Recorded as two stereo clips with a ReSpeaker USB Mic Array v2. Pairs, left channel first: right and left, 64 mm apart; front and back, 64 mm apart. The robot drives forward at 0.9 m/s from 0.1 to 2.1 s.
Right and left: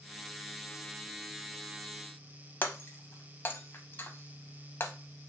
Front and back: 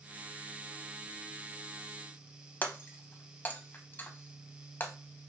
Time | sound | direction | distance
2.6 | breaking glass | 45° right | 0.7 m